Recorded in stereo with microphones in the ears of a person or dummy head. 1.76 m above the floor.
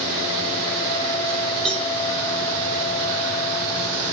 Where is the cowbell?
5° left (ahead or behind), 1.2 m.